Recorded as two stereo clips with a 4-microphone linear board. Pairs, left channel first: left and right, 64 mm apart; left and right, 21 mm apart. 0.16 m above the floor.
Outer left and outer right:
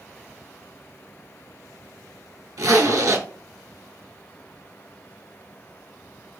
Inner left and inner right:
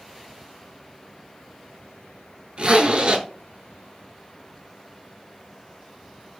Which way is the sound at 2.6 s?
60° right (ahead or behind).